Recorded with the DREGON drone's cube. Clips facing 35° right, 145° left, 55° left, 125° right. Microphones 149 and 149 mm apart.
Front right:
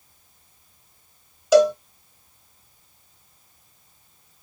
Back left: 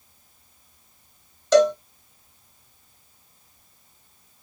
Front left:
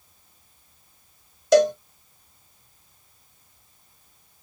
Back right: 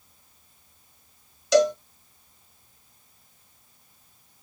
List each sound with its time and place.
1.5 s a cowbell: 45° left, 0.7 m